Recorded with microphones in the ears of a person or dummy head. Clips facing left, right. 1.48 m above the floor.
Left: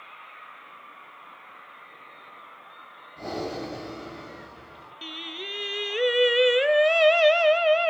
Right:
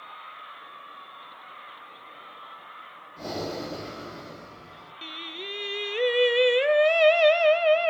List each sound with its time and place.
3.2 s breathing: 15° right (ahead or behind), 9 m
5.0 s singing: 10° left (ahead or behind), 0.6 m